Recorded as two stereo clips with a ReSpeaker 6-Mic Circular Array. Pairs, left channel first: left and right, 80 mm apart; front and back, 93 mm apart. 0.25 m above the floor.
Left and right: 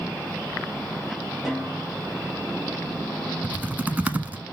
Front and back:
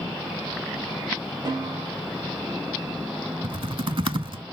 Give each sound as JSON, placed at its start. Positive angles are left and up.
{"t": 1.4, "sound": "a snare drum", "azimuth_deg": -170, "distance_m": 2.0}
{"t": 3.4, "sound": "typing on a keyboard", "azimuth_deg": -155, "distance_m": 0.5}